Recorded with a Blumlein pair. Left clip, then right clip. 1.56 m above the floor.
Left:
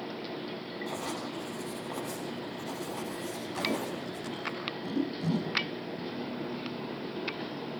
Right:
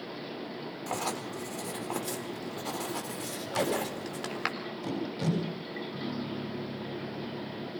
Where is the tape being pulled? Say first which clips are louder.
Right 3 dB; 45° right, 10 m.